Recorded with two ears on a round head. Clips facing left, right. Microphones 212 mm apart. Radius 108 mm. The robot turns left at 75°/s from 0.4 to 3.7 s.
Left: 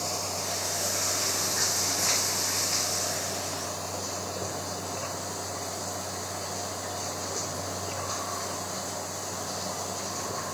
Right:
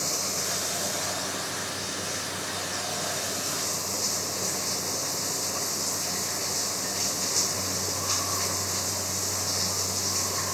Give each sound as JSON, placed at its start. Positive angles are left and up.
{"t": 0.0, "sound": "running water", "azimuth_deg": -150}